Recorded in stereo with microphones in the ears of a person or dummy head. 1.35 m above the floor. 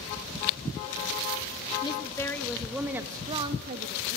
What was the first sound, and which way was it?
A woman speaking, 20° left (ahead or behind).